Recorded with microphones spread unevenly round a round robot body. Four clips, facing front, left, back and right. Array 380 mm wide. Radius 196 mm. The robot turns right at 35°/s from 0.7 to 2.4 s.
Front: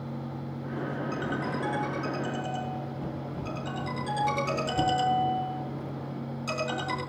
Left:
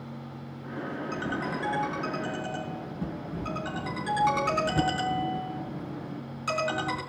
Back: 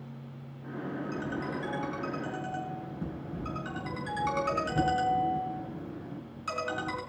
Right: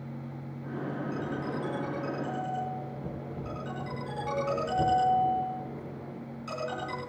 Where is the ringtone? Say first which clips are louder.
Left 2 dB, front 3 dB; 65° left, 7.5 m; by 7.0 s 110° left, 7.5 m.